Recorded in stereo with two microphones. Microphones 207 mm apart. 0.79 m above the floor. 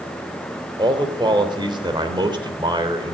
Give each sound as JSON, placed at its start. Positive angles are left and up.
{"t": 0.8, "sound": "a man speaking", "side_deg": -20, "distance_m": 3.5}